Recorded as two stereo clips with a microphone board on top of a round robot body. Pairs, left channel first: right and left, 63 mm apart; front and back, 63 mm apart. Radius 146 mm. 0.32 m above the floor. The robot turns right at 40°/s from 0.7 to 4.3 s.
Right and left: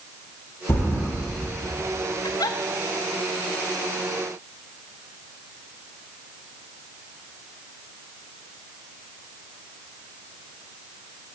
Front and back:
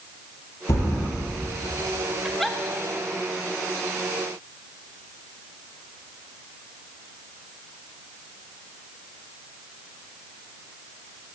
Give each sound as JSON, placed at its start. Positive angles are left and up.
{"t": 0.7, "sound": "a thud", "azimuth_deg": -40, "distance_m": 6.0}
{"t": 2.2, "sound": "a giggle", "azimuth_deg": -95, "distance_m": 1.0}